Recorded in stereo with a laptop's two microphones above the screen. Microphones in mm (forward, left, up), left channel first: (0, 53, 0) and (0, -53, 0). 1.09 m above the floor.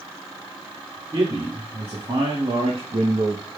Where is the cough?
I don't hear a cough.